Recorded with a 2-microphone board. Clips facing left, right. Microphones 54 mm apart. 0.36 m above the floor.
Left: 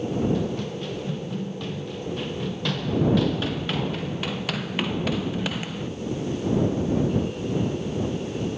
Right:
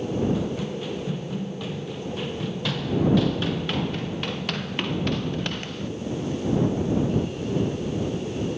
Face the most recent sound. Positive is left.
turn(degrees=5)  # may be behind; listen again after turning